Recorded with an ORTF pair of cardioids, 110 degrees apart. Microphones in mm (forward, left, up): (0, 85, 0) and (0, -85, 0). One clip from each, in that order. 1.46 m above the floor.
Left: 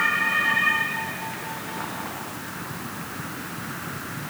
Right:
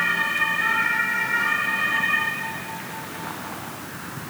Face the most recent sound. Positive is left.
No sound to turn to.